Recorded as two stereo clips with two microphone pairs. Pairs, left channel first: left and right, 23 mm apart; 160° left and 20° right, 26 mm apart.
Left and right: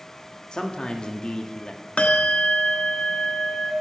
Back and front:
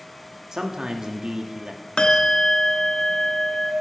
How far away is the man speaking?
About 1.4 m.